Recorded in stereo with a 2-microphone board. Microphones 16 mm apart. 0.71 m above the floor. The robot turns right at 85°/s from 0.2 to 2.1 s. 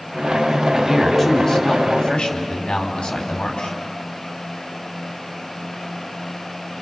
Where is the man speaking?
30° right, 5 m; by 3.7 s 85° left, 5 m.